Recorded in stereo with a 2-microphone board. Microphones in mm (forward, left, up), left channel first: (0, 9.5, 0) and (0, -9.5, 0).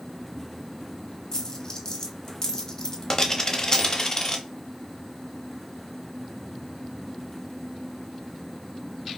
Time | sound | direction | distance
1.3 | a dropped coin | 30° left (ahead or behind) | 0.6 m